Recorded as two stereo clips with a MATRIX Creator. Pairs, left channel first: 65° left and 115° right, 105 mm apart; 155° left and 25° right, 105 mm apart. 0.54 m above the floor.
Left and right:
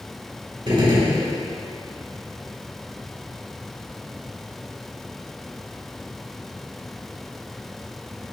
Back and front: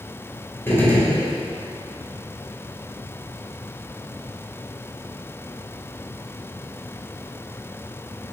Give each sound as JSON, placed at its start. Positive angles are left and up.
{"t": 0.7, "sound": "a gunshot", "azimuth_deg": -140, "distance_m": 3.0}